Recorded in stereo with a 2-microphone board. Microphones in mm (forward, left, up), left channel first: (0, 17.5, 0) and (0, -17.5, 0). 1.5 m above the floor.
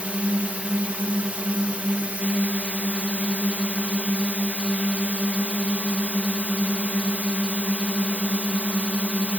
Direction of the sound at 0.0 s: 40° right (ahead or behind).